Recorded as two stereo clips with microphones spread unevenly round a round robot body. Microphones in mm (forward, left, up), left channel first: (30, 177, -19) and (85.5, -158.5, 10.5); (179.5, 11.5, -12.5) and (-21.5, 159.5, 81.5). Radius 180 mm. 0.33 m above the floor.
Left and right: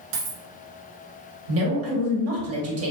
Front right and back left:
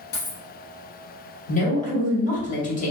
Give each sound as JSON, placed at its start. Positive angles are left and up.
{"t": 0.1, "sound": "a dropped coin", "azimuth_deg": -85, "distance_m": 1.0}
{"t": 1.5, "sound": "a woman speaking", "azimuth_deg": -40, "distance_m": 1.2}